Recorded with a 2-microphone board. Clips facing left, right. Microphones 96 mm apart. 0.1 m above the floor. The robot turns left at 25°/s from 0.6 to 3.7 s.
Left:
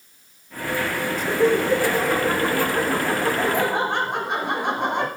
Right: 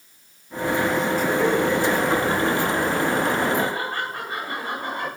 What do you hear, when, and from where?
1.2 s laughter: 160° left, 7.5 m; by 5.1 s 95° left, 7.5 m